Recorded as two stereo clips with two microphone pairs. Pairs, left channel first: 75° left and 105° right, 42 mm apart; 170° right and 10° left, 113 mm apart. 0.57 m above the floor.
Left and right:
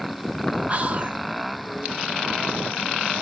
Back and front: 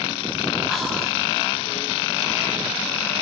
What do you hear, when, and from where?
0.7 s whispering: 80° right, 0.8 m